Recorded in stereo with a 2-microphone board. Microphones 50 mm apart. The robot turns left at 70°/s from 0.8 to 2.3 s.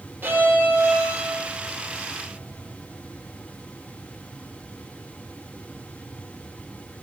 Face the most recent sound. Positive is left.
turn(degrees=-155)